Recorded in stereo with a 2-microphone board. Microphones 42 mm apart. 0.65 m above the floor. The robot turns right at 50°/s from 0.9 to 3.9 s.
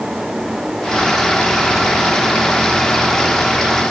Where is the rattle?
I don't hear a rattle.